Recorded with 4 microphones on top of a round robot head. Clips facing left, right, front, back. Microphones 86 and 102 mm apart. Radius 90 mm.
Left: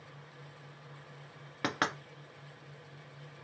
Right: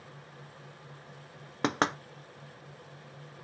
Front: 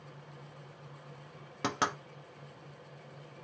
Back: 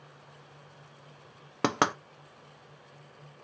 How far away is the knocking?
About 0.6 m.